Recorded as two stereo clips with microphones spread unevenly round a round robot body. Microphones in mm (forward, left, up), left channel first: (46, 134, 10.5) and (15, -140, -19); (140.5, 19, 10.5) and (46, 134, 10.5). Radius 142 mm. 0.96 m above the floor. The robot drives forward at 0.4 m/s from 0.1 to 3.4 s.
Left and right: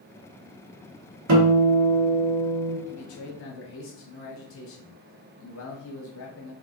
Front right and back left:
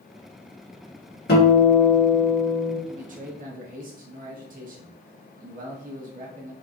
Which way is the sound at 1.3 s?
70° right.